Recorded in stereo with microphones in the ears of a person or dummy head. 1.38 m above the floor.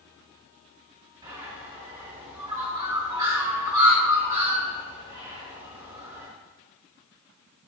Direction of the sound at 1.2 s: 20° right (ahead or behind).